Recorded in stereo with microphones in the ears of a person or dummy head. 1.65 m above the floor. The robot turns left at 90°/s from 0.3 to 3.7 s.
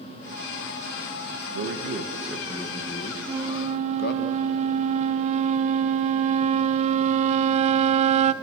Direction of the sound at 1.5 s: 110° right.